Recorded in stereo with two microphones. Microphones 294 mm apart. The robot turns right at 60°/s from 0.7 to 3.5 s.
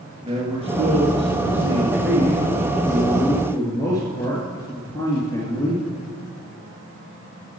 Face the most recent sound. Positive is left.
turn(degrees=15)